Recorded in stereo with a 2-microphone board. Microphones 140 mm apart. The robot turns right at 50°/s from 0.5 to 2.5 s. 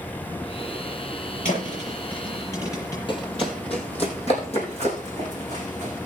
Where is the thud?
70° left (ahead or behind), 6.5 m; by 3.0 s 20° left (ahead or behind), 6.5 m.